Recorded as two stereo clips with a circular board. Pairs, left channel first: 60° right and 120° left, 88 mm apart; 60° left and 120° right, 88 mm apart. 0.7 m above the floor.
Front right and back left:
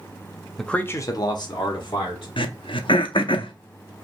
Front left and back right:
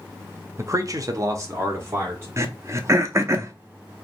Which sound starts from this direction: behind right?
A man speaking, at 0.6 s.